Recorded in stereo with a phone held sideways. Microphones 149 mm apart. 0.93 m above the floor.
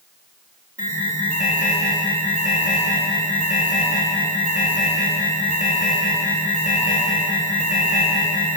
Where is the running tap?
I don't hear a running tap.